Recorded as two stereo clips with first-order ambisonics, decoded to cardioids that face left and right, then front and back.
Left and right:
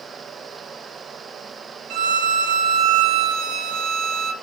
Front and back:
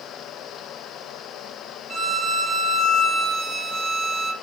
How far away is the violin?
About 0.5 m.